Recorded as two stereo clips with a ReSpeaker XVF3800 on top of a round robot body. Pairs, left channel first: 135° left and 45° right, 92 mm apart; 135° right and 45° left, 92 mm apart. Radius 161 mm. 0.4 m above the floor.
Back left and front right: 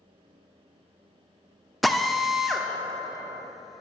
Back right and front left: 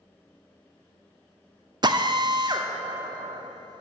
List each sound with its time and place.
1.8 s a drill: 45° left, 1.3 m